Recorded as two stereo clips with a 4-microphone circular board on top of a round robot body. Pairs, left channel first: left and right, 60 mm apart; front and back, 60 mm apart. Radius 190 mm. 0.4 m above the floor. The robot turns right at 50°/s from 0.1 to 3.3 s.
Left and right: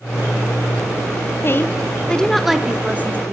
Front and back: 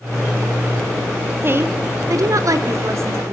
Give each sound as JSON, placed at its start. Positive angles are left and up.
{"t": 1.4, "sound": "a woman speaking", "azimuth_deg": 130, "distance_m": 1.5}